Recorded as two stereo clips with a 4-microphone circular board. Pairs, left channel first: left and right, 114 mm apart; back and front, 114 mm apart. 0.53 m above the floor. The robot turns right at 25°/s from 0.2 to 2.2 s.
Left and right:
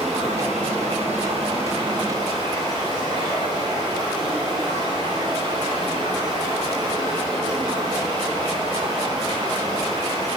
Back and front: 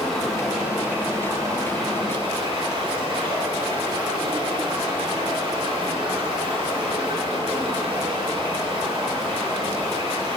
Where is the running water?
95° right, 2.5 m; by 10.4 s 45° right, 2.5 m.